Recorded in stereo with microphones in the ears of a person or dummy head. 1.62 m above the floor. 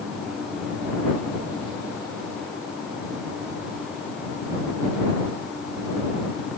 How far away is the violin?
No violin in this recording.